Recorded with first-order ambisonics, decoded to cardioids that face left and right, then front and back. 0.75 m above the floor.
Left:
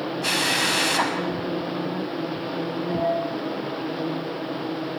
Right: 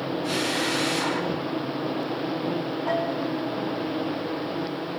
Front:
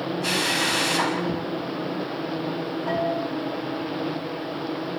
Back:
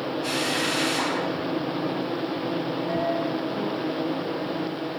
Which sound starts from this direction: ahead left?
A drill, at 0.2 s.